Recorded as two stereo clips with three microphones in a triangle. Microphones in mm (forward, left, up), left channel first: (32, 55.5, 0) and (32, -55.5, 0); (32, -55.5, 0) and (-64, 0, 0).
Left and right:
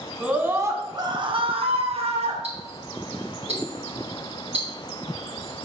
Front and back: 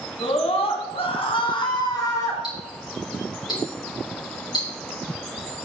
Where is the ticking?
75° right, 4 m.